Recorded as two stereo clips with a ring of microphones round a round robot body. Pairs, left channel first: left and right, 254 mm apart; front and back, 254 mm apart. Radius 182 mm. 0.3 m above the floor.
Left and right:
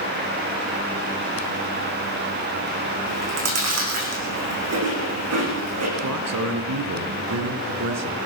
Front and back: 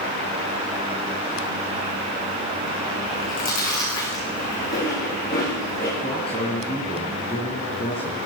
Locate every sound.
3.1 s chewing: 70° right, 7.5 m
6.0 s a man speaking: 75° right, 3.5 m